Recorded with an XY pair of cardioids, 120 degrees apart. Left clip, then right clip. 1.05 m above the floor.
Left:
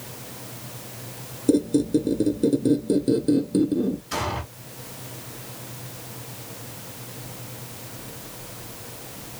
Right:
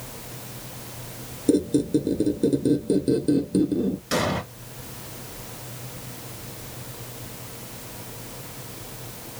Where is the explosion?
70° right, 2.5 m.